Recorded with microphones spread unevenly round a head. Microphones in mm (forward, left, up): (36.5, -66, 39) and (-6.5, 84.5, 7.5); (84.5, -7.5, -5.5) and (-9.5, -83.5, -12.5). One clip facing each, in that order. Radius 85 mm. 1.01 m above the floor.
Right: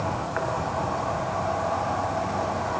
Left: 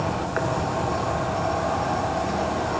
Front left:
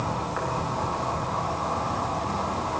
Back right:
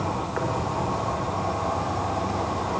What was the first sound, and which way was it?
An insect, 160° left.